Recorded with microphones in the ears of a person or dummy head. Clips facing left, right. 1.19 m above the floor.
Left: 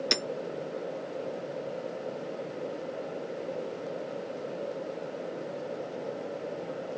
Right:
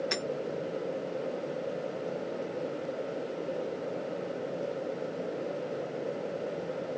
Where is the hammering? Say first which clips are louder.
Left 2 dB; 55° left (ahead or behind), 1.1 m.